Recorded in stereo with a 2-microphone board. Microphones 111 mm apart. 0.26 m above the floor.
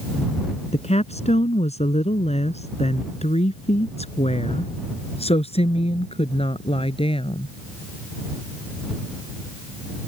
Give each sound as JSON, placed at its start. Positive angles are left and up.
{"t": 0.7, "sound": "a woman speaking", "side_deg": 65}